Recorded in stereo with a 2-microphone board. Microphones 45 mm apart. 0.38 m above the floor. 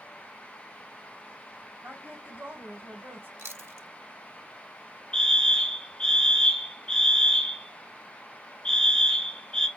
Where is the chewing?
65° right (ahead or behind), 0.6 m.